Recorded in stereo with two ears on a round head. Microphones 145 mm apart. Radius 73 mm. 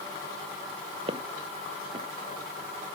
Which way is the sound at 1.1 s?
35° right (ahead or behind).